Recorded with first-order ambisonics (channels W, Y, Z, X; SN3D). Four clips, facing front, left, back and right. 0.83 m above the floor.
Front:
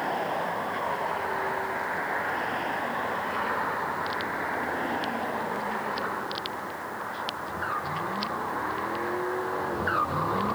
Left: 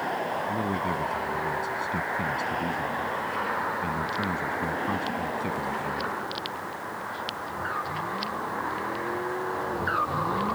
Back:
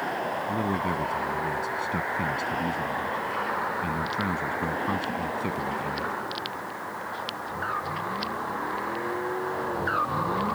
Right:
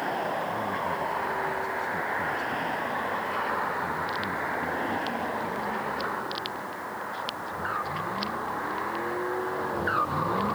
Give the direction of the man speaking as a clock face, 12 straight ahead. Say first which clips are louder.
Left 1 dB, back 2 dB; 7 o'clock.